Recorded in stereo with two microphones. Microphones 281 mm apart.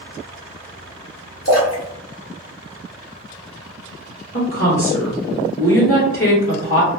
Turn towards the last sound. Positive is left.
turn(degrees=50)  # may be behind; listen again after turning